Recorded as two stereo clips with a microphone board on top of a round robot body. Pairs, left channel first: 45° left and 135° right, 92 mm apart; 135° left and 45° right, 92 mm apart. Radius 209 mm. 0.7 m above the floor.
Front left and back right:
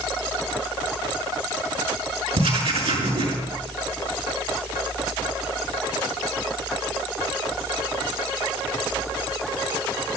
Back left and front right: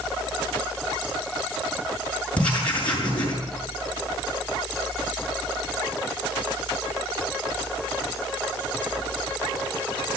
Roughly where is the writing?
Behind right.